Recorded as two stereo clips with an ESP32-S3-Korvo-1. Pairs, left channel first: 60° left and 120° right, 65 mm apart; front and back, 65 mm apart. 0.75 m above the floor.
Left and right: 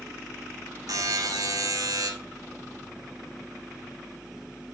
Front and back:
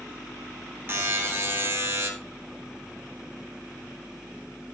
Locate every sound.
0.9 s a buzzer: 130° right, 2.5 m